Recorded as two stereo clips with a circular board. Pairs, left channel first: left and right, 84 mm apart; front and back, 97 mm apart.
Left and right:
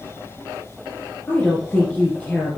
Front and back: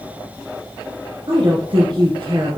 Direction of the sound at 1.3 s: 160° left.